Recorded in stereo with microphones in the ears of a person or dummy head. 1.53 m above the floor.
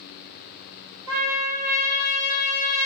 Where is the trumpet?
15° right (ahead or behind), 0.8 m.